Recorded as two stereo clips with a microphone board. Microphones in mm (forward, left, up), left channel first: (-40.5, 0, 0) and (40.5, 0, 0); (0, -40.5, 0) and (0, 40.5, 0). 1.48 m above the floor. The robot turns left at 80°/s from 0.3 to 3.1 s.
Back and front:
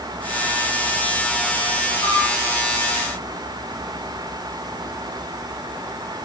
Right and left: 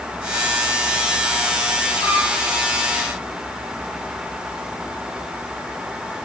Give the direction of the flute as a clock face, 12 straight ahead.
3 o'clock.